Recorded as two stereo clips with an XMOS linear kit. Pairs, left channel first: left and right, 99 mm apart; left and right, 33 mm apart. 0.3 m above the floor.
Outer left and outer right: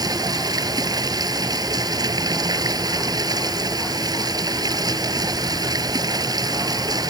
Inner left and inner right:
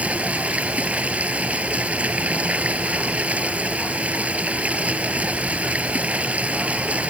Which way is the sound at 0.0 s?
40° right (ahead or behind).